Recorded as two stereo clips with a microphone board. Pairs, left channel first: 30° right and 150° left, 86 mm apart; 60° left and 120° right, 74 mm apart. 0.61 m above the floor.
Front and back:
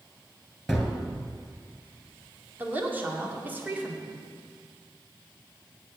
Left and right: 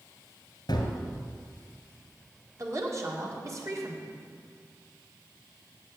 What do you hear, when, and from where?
0.7 s a gunshot: 60° left, 1.7 m
2.6 s a woman speaking: 150° right, 1.8 m